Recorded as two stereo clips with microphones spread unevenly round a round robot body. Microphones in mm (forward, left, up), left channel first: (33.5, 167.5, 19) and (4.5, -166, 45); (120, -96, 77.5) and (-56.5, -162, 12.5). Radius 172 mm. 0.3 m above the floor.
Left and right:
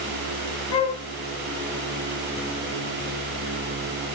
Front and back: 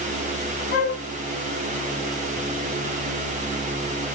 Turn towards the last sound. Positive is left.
turn(degrees=75)